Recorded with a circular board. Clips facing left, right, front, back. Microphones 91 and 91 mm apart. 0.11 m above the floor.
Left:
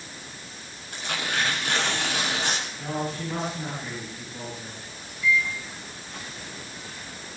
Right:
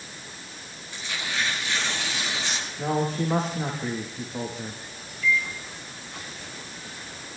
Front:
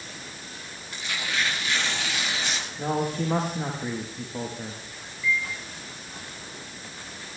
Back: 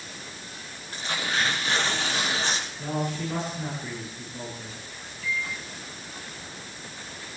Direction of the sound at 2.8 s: 45° right.